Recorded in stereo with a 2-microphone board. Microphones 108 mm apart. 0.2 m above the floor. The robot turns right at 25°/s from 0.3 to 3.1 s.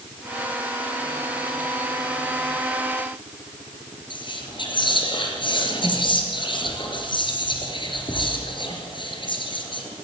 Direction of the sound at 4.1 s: 50° left (ahead or behind).